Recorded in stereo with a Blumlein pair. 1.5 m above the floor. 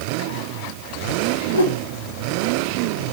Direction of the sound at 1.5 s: 70° left.